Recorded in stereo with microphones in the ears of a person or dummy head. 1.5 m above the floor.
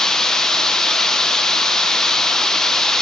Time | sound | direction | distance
0.0 | running water | 10° left (ahead or behind) | 0.8 m